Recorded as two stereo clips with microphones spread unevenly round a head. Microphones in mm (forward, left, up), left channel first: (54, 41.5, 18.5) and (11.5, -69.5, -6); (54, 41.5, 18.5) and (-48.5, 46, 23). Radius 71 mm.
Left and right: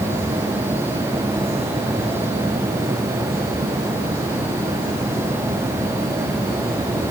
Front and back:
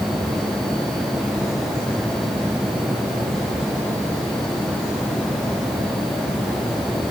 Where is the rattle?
No rattle in this recording.